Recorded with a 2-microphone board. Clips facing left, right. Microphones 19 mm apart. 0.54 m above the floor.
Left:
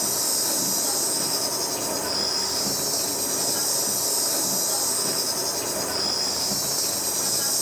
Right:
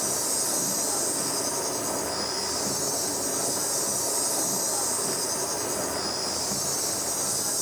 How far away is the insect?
About 8 m.